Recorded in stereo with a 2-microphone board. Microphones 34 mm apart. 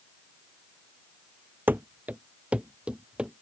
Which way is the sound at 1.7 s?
70° right (ahead or behind).